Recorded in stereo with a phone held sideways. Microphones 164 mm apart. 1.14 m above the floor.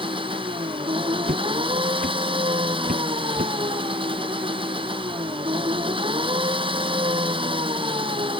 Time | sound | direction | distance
0.0 | an engine running | 30° right (ahead or behind) | ?
1.2 | footsteps | 70° right (ahead or behind) | ?